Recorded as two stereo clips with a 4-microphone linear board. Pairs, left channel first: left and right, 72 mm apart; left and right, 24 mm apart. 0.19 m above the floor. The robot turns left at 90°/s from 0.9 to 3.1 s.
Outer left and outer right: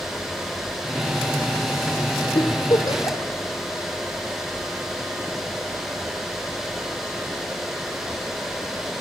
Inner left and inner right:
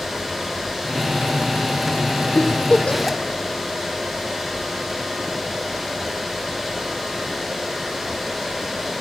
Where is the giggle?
80° left, 1.6 m; by 3.3 s 30° left (ahead or behind), 1.6 m.